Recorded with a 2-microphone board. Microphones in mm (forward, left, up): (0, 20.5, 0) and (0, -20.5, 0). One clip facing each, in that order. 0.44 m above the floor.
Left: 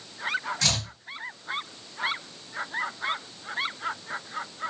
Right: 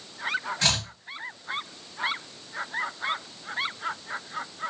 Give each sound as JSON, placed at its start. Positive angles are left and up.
{"t": 0.6, "sound": "chopping", "side_deg": -20, "distance_m": 1.4}